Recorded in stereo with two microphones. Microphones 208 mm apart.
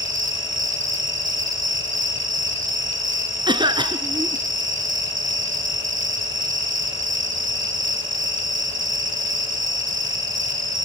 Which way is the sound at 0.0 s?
65° right (ahead or behind).